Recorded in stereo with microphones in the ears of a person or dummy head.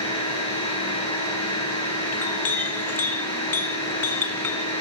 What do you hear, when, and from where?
0.0 s a machine running: 30° left (ahead or behind), 6.5 m
2.1 s a clink: 15° left (ahead or behind), 0.9 m